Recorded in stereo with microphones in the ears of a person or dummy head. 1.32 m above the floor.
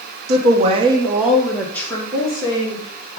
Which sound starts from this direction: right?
A woman speaking, at 0.3 s.